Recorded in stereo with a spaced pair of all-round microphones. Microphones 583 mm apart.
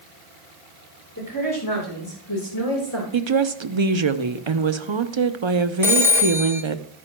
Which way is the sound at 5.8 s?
5° right (ahead or behind).